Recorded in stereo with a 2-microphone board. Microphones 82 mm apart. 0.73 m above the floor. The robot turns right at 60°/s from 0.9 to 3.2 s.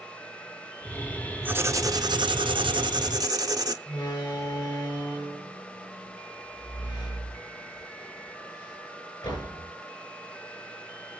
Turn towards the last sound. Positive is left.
turn(degrees=65)  # may be behind; listen again after turning